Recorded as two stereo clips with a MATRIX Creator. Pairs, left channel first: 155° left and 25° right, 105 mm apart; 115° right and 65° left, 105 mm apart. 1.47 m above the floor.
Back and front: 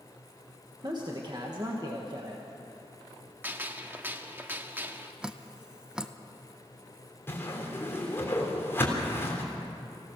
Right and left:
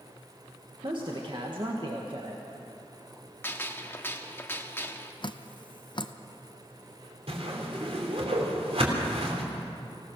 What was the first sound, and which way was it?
A man speaking, 25° left.